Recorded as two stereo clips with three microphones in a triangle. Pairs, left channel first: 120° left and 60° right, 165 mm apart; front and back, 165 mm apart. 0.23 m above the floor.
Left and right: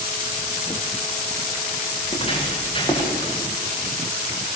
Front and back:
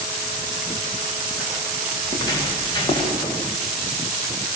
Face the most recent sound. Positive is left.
turn(degrees=60)